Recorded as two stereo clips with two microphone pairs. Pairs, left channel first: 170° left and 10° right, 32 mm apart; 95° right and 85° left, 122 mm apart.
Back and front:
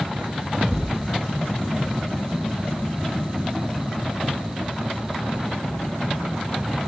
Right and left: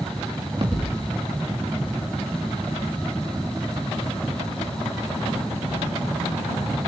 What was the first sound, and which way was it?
A thud, 40° left.